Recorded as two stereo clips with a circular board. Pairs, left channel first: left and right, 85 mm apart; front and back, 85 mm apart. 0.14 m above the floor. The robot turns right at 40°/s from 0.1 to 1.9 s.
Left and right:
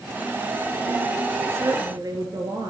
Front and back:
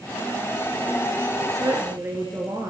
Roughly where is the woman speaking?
Behind right.